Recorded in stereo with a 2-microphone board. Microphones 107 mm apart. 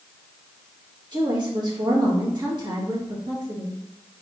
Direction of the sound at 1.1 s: 40° right (ahead or behind).